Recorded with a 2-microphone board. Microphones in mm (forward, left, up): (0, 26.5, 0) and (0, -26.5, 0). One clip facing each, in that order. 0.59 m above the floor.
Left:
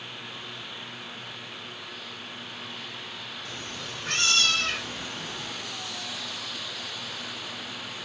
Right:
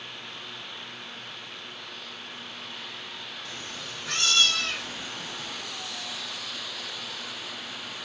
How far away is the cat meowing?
About 1.0 m.